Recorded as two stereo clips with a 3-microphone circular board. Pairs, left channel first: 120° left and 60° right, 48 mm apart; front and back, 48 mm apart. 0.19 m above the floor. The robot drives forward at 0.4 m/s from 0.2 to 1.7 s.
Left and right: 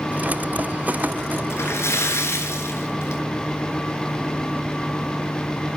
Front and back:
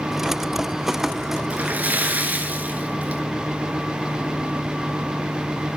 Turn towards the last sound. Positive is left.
turn(degrees=130)